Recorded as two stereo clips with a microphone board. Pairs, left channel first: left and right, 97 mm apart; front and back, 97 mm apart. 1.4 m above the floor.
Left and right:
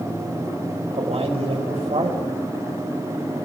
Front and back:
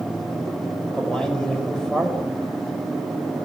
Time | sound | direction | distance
0.9 | a man speaking | 85° right | 6.5 m